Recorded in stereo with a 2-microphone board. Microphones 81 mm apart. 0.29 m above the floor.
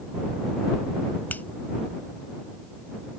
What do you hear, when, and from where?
1.3 s a finger snap: 25° left (ahead or behind)